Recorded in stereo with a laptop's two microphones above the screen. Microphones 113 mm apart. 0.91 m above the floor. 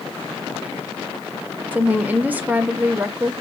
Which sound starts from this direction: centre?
A woman speaking, at 1.7 s.